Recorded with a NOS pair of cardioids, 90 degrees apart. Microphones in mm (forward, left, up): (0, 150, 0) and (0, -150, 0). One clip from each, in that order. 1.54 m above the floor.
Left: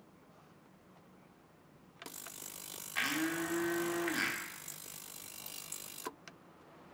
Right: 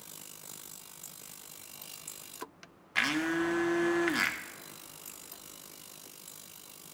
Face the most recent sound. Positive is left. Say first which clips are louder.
# right 5 dB
turn(degrees=-30)